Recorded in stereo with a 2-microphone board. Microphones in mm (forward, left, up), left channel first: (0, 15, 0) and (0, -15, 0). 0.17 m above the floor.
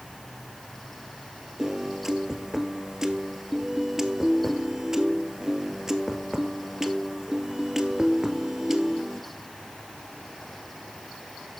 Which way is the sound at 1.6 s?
15° right (ahead or behind).